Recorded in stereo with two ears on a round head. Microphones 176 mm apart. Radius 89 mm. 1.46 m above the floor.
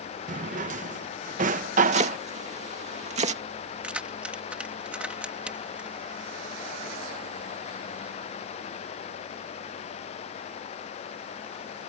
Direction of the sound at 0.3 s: 40° right (ahead or behind).